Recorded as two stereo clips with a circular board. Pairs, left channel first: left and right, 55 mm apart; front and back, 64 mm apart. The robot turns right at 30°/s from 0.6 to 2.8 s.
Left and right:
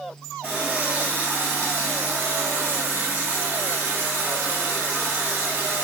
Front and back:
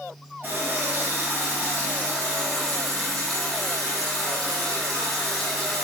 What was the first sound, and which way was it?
A running tap, 150° right.